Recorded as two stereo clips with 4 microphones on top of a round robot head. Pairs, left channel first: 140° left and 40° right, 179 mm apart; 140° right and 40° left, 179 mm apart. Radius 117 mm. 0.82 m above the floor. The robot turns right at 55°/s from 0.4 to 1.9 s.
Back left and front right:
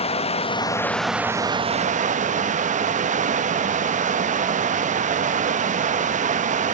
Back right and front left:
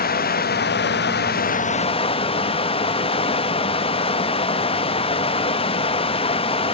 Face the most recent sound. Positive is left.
turn(degrees=-85)